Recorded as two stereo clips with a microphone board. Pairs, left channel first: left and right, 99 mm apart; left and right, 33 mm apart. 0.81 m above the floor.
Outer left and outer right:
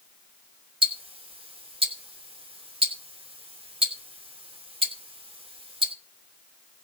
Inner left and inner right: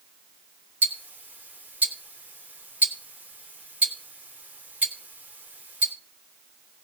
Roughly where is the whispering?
I don't hear whispering.